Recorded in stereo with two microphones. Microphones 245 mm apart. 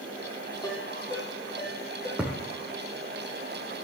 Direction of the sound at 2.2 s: 5° right (ahead or behind).